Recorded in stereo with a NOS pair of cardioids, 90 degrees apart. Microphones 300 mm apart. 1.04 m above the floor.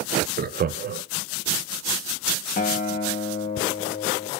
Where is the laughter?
35° right, 0.6 m.